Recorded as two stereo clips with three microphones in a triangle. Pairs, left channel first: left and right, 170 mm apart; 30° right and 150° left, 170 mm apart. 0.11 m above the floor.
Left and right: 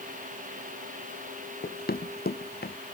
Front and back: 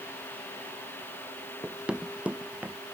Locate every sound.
1.6 s running footsteps: 65° left; by 2.8 s 70° left